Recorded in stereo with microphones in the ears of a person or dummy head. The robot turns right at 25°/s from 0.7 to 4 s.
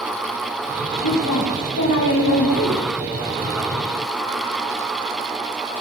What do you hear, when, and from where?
1.0 s a woman speaking: 80° left, 9 m; by 2.8 s 125° left, 9 m